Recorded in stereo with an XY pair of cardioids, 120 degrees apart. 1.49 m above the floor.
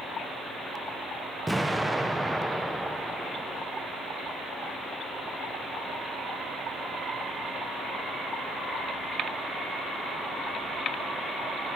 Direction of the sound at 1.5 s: 5° right.